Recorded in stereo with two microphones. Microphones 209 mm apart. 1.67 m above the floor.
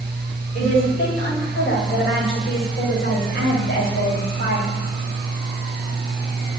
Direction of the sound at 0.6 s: 80° left.